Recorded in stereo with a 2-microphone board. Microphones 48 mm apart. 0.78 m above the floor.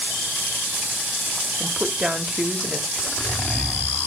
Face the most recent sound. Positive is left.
turn(degrees=40)  # may be behind; listen again after turning